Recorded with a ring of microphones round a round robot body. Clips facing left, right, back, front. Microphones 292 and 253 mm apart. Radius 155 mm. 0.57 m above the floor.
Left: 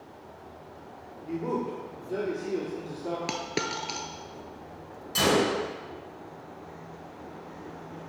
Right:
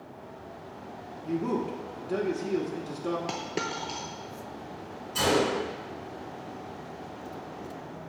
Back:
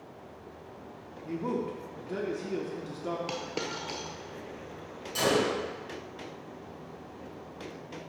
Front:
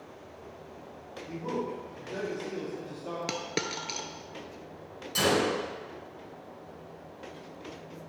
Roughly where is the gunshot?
Ahead left.